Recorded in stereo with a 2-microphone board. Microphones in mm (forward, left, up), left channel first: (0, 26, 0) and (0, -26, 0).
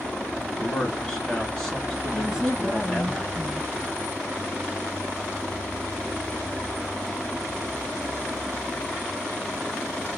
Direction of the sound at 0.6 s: 10° left (ahead or behind).